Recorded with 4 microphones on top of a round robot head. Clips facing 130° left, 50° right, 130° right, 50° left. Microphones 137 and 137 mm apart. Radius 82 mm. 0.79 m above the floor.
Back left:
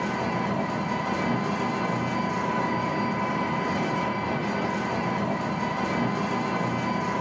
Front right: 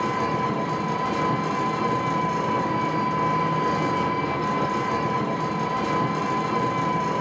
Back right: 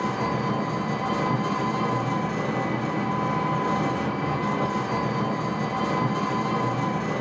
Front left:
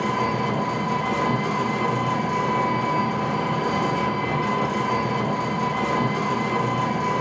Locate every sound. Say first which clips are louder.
0.0 s an engine running: front right 3 dB, front left 3 dB; 30° right, 1.6 m